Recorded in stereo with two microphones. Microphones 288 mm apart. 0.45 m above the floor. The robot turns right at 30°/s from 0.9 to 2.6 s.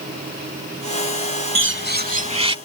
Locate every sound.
1.6 s a bird: 50° right; by 2.6 s 20° right